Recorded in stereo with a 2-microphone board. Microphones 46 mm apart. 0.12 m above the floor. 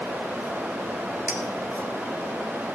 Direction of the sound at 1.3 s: 35° right (ahead or behind).